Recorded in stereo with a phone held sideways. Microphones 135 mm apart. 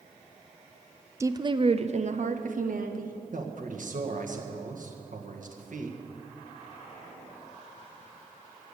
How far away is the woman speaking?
About 0.6 m.